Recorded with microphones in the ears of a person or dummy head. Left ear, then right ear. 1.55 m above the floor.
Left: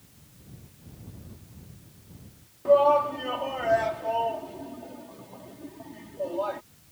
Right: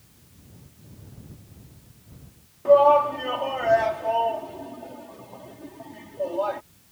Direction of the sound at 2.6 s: 15° right (ahead or behind).